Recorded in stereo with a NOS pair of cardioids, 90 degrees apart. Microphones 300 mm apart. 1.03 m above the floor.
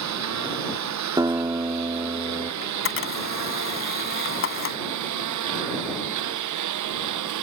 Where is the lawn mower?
65° right; by 7.4 s 75° right.